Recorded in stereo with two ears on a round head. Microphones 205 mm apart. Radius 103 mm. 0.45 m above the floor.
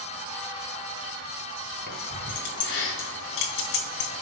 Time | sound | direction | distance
1.9 | keys jangling | 45° left (ahead or behind) | 3 m